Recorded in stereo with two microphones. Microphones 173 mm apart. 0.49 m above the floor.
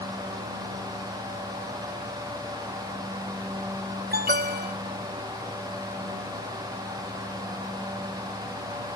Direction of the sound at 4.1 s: 70° right (ahead or behind).